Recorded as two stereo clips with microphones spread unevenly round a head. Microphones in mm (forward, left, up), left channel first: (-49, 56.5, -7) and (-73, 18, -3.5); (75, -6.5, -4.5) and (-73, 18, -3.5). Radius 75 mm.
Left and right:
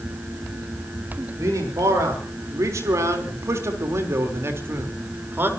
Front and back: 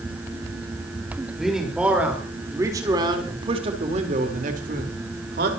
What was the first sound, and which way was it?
A man speaking, 100° right.